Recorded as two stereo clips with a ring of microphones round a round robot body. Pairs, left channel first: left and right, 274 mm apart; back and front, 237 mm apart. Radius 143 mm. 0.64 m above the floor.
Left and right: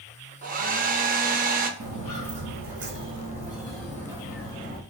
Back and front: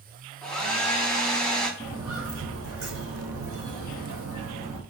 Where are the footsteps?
75° right, 1.0 m; by 4.8 s 20° left, 1.4 m.